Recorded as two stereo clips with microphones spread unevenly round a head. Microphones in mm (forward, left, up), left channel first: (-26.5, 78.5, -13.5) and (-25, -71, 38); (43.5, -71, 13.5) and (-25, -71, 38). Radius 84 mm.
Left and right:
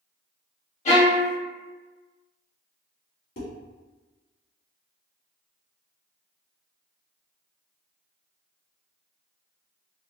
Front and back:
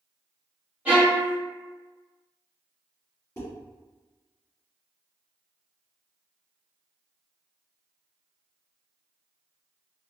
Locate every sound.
0.8 s a violin: 95° left, 1.2 m
3.4 s dishes clattering: 65° left, 1.8 m